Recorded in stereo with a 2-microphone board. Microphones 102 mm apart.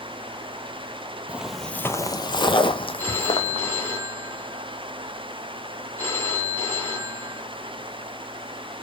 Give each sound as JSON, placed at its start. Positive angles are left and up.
{"t": 1.3, "sound": "footsteps", "side_deg": -15, "distance_m": 0.6}
{"t": 3.0, "sound": "a phone ringing", "side_deg": 25, "distance_m": 3.0}